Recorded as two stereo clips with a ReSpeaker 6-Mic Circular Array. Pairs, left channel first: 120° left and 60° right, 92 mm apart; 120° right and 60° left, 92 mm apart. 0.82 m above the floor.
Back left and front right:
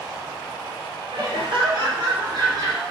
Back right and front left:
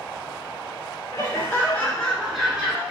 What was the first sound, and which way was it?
Laughter, 75° right.